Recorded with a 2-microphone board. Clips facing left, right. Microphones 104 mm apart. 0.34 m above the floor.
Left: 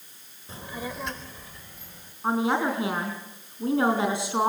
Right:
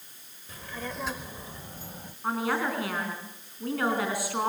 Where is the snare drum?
No snare drum in this recording.